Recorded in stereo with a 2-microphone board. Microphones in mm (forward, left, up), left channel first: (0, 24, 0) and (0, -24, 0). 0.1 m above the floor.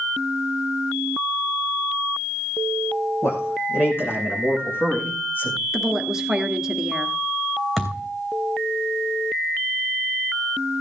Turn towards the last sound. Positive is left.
turn(degrees=10)  # may be behind; listen again after turning